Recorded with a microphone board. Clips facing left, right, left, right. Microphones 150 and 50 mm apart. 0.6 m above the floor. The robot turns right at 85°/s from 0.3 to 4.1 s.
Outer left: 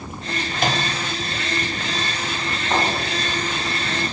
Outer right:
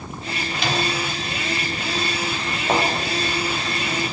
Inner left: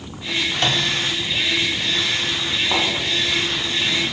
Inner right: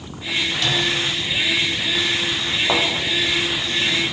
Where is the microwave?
50° left (ahead or behind), 1.4 m; by 0.9 s 35° left (ahead or behind), 1.4 m.